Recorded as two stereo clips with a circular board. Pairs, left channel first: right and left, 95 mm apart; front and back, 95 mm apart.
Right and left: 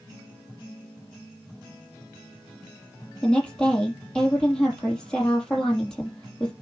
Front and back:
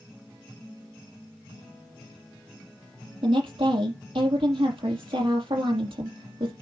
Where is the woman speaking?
170° right, 5 m.